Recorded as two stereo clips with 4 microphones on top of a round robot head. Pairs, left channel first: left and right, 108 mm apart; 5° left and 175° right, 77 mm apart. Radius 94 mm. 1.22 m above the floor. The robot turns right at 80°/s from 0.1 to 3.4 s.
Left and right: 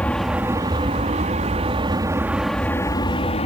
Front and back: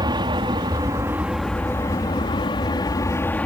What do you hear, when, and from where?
0.0 s an aircraft: 170° left; by 3.5 s 75° left